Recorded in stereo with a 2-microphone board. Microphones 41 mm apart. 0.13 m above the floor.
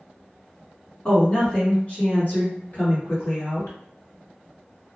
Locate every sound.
1.1 s a woman speaking: 20° left (ahead or behind), 1.2 m; by 3.8 s 60° left (ahead or behind), 2 m